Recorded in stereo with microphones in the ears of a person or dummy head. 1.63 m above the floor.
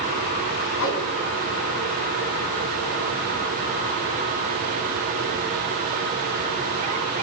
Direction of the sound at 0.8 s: 70° left (ahead or behind).